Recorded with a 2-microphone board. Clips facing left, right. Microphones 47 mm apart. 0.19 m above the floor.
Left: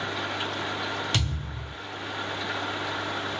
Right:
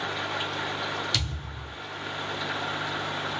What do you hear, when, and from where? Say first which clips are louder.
1.1 s a thud: left 2 dB; 40° left (ahead or behind), 1.0 m